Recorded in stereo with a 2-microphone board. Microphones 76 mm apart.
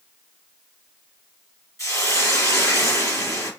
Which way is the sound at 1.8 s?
40° left (ahead or behind).